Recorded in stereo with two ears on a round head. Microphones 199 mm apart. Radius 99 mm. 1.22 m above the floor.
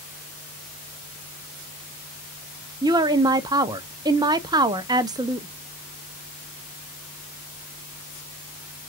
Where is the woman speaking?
20° right (ahead or behind), 0.6 m.